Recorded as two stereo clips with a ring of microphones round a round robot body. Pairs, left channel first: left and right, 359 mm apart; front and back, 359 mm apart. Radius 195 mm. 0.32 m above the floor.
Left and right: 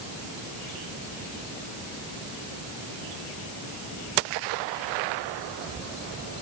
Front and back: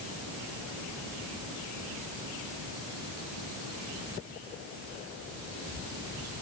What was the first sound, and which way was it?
Only background noise.